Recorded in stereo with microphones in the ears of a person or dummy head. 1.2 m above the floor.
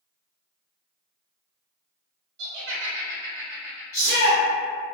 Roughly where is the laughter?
Right.